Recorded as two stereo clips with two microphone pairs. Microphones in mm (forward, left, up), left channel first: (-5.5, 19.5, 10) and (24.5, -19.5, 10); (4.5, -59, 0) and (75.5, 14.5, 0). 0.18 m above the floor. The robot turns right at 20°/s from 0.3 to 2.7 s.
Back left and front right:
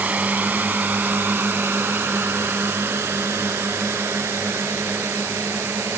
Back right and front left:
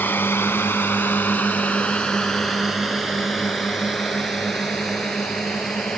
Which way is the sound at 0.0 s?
75° right.